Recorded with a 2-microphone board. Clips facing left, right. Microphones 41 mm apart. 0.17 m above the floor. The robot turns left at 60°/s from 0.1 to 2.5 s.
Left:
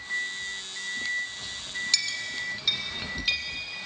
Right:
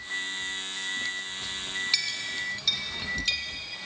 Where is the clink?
10° right (ahead or behind), 1.2 m; by 3.4 s 10° left (ahead or behind), 1.2 m.